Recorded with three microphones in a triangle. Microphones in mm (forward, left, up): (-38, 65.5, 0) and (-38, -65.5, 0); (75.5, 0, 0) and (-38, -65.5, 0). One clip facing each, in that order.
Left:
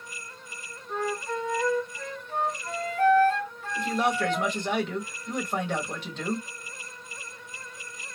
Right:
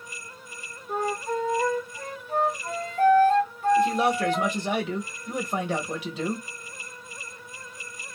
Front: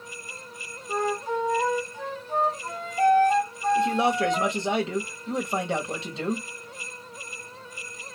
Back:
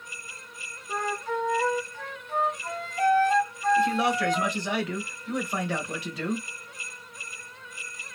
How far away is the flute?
About 2 m.